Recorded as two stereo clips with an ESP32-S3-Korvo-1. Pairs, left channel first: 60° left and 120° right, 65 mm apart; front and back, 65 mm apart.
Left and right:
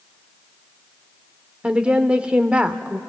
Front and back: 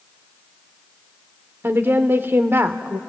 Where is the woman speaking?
Straight behind, 0.9 m.